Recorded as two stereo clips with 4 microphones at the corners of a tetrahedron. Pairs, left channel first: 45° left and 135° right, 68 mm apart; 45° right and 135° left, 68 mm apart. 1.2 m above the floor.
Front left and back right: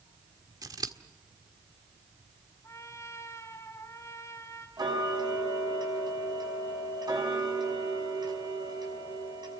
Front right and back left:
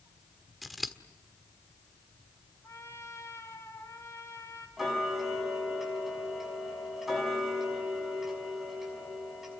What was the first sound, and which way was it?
Scissors, 135° right.